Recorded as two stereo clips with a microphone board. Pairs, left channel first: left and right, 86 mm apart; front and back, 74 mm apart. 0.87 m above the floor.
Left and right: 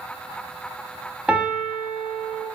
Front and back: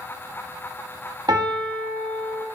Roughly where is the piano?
Behind.